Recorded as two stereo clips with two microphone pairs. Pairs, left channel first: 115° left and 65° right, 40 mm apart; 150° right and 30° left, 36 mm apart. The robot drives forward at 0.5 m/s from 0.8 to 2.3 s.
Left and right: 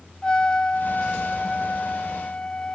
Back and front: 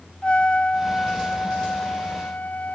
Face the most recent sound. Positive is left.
turn(degrees=175)